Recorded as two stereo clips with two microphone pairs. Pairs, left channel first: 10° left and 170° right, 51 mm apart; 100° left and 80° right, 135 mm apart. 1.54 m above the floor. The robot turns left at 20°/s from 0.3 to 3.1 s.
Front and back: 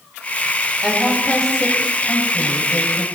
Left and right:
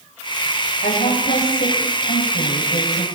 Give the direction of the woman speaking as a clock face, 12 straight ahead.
8 o'clock.